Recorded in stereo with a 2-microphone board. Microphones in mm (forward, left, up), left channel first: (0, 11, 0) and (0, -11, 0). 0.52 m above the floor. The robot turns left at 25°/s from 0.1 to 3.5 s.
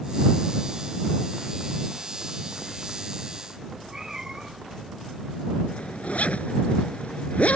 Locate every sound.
3.6 s a cat meowing: 20° right (ahead or behind)
5.7 s a zipper: 70° left (ahead or behind)